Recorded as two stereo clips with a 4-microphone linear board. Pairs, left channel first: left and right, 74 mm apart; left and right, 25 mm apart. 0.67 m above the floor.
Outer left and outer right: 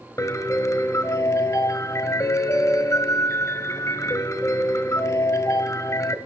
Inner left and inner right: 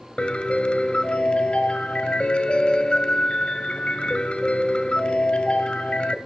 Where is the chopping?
No chopping in this recording.